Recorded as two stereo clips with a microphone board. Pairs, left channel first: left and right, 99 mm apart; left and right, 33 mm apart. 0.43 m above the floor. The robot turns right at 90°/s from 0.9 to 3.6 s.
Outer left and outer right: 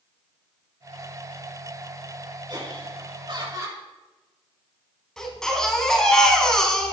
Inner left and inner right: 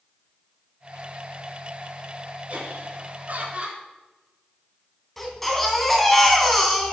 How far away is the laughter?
About 5 m.